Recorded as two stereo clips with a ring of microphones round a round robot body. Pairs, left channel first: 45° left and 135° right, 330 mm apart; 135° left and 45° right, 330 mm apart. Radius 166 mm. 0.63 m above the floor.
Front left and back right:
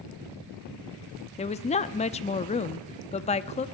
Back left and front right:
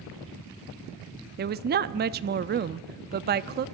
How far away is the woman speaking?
About 0.6 m.